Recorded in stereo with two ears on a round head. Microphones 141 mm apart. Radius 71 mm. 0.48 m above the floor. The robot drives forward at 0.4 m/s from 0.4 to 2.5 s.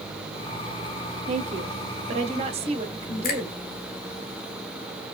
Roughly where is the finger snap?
Left.